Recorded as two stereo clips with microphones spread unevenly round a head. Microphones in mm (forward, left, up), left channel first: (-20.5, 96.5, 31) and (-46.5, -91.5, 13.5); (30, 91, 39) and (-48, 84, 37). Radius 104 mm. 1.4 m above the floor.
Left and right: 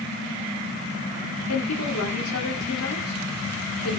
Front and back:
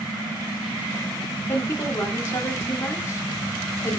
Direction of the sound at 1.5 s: 60° left.